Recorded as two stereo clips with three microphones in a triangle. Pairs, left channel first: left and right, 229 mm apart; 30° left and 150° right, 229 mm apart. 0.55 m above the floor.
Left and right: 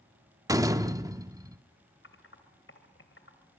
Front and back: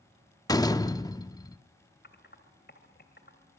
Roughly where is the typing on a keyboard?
Ahead left.